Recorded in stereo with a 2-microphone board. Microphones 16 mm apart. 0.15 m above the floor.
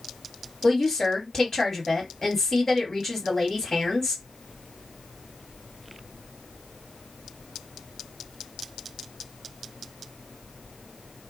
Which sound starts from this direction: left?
A woman speaking, at 0.6 s.